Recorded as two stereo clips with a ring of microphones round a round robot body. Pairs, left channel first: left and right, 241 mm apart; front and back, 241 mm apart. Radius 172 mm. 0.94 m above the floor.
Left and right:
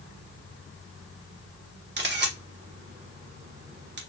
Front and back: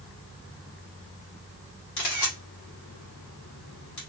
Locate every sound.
2.0 s a camera shutter: 45° right, 1.5 m